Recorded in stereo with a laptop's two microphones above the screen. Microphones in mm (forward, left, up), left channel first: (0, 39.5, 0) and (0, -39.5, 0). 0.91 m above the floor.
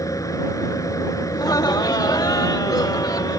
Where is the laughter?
55° left (ahead or behind).